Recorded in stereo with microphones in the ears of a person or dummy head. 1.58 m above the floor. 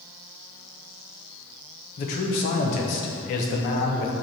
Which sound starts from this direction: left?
A man speaking, at 2.0 s.